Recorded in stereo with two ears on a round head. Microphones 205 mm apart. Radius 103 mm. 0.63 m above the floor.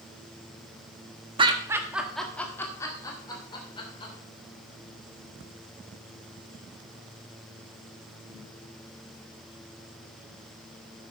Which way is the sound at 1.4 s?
20° right (ahead or behind).